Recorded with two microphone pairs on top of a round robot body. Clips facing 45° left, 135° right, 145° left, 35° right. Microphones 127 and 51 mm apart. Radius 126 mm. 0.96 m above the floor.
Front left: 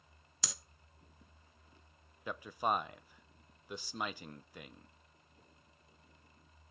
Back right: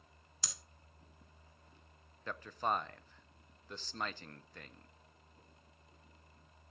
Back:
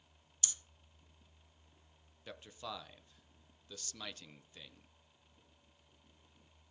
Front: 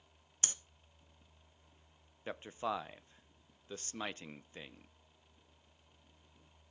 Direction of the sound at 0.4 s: 25° left.